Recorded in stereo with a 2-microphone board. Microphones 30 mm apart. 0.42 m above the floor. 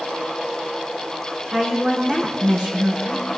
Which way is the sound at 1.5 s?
30° right (ahead or behind).